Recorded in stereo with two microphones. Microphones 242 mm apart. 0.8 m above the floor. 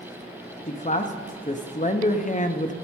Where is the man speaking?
30° left (ahead or behind), 0.7 m.